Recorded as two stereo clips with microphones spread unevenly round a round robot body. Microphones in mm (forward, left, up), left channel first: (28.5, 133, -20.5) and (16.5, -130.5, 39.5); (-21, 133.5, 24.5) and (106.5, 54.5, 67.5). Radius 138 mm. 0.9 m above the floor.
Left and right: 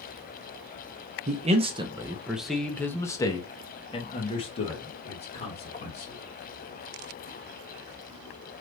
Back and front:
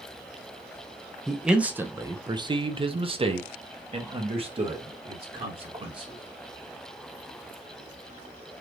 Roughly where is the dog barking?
No dog barking in this recording.